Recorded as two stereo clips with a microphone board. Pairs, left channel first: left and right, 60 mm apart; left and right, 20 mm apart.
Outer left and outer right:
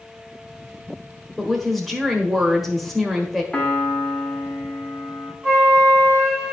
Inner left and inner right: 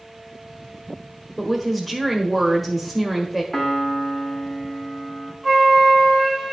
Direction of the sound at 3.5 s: 15° left (ahead or behind).